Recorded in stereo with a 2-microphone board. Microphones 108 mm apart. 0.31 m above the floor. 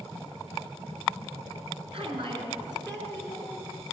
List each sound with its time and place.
1.9 s a woman speaking: 55° right (ahead or behind), 3 m; by 3.5 s 20° right (ahead or behind), 3 m